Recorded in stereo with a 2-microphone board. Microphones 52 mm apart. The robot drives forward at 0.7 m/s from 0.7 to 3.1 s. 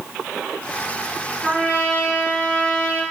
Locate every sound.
1.4 s a trumpet: 25° left (ahead or behind), 2.5 m; by 3.0 s 15° left (ahead or behind), 3.5 m